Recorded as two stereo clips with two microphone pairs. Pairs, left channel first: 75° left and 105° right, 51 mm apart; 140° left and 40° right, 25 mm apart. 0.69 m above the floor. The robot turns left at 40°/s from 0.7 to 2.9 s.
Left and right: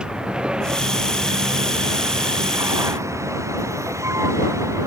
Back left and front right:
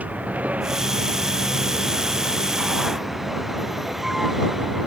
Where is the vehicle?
35° right; by 4.9 s 125° right.